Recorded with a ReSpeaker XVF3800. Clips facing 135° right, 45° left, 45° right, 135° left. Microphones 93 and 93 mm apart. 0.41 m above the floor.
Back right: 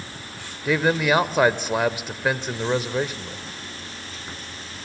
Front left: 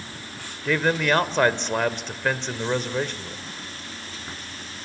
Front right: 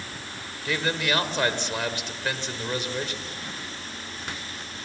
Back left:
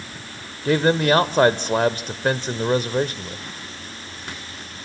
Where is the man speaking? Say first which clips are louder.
Back right 2 dB, back left 10 dB; 145° left, 1.3 m.